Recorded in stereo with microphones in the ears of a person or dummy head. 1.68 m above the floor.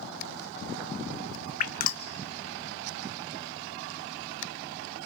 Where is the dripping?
45° left (ahead or behind), 0.8 m.